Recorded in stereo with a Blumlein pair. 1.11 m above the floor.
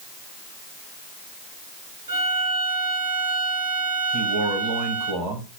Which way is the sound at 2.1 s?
70° right.